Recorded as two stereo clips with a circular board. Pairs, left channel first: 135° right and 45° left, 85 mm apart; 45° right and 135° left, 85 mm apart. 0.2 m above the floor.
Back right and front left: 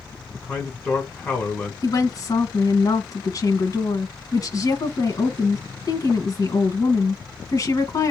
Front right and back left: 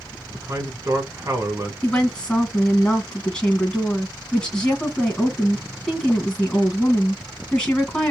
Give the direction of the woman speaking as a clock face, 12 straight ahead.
4 o'clock.